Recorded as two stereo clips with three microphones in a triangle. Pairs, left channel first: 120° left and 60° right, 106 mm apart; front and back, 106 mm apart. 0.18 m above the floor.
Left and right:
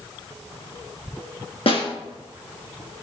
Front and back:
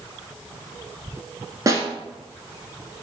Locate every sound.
1.7 s a snare drum: 125° left, 1.6 m